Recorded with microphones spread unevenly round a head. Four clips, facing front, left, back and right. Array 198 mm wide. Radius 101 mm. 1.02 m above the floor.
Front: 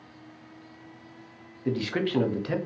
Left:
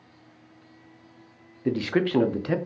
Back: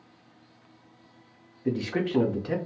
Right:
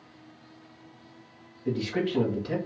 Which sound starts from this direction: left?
A man speaking, at 1.6 s.